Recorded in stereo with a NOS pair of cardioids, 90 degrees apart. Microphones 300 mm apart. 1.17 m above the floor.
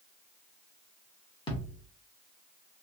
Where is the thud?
20° left, 1.5 m.